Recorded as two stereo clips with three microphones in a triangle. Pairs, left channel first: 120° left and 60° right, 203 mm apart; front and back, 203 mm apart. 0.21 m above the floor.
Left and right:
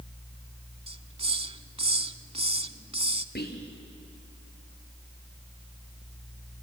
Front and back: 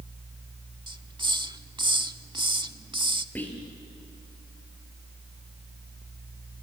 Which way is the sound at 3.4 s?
80° left.